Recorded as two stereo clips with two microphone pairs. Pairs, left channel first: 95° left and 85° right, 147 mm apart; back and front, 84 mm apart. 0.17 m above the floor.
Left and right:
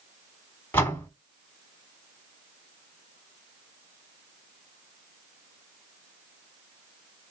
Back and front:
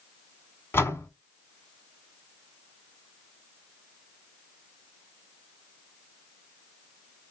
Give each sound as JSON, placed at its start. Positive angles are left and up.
{"t": 0.7, "sound": "a door slam", "azimuth_deg": 160, "distance_m": 1.3}